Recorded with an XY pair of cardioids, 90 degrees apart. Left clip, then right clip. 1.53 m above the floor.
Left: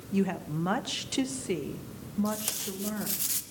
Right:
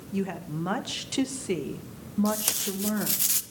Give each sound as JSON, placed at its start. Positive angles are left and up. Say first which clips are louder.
{"t": 0.1, "sound": "a woman speaking", "louder": "left 2 dB", "azimuth_deg": 20, "distance_m": 2.0}
{"t": 2.2, "sound": "tape being pulled", "louder": "right 6 dB", "azimuth_deg": -50, "distance_m": 1.5}